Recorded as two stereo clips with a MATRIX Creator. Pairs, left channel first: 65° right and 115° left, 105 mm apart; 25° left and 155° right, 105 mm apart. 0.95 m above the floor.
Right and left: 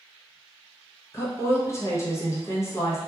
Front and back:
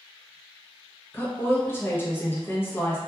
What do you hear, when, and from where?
1.1 s a woman speaking: 30° right, 0.7 m